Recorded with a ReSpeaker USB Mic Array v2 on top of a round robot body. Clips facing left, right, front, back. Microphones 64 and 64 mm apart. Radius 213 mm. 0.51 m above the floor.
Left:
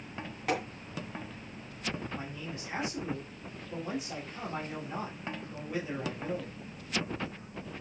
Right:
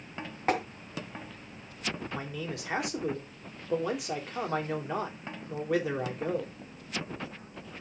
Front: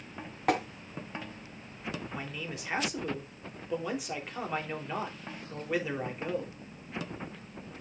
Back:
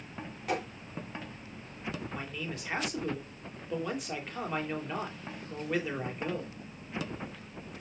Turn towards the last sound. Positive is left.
turn(degrees=-85)